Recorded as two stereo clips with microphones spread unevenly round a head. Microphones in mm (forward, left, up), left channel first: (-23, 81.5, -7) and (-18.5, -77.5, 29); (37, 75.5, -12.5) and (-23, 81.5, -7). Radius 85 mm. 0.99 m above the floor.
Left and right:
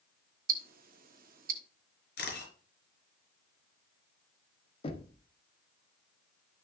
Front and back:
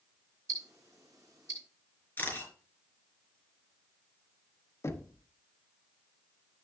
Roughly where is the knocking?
Ahead left.